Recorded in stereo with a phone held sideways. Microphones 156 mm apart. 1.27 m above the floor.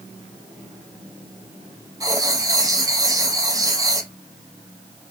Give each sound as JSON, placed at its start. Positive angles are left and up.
{"t": 2.0, "sound": "writing", "side_deg": -25, "distance_m": 0.7}